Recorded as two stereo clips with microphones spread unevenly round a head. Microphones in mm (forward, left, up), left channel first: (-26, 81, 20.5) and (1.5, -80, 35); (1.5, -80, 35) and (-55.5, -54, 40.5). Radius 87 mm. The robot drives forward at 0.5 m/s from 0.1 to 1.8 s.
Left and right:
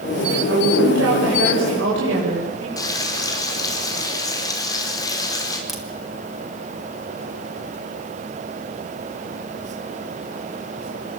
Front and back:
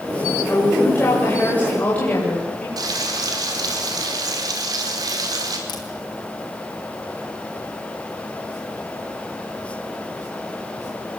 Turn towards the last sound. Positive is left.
turn(degrees=5)